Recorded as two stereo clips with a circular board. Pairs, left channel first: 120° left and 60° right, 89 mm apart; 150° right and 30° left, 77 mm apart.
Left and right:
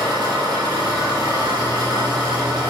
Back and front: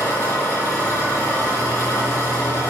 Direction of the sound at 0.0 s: 95° right.